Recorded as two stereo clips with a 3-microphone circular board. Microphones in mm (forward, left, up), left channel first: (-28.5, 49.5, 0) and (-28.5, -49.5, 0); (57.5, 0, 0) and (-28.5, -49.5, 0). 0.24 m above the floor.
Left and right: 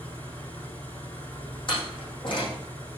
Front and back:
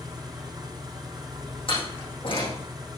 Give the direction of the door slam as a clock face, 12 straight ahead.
10 o'clock.